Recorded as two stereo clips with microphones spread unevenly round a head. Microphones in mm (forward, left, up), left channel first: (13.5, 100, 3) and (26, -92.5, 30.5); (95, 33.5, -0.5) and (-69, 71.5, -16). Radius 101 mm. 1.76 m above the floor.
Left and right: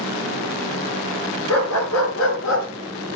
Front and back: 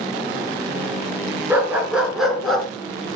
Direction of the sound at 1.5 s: 85° left.